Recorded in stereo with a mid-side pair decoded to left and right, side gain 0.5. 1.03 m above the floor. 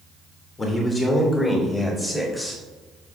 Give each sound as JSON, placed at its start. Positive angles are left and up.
{"t": 0.6, "sound": "a man speaking", "azimuth_deg": 30, "distance_m": 2.5}